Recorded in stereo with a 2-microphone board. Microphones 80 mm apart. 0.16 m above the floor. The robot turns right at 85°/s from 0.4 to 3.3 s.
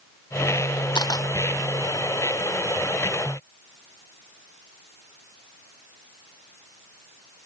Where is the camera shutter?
70° left (ahead or behind), 0.9 m; by 1.3 s 45° left (ahead or behind), 0.9 m.